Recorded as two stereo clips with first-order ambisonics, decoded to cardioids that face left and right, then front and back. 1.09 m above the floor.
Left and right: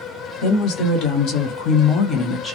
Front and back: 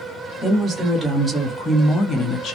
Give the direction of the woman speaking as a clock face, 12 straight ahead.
8 o'clock.